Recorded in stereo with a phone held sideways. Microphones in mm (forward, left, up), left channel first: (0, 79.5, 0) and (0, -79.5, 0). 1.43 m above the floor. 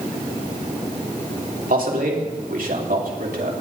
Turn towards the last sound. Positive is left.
turn(degrees=-70)  # may be behind; listen again after turning